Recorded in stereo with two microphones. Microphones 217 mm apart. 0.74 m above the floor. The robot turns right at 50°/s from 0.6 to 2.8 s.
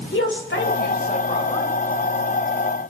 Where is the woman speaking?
115° left, 3.5 m; by 1.7 s 170° left, 3.5 m.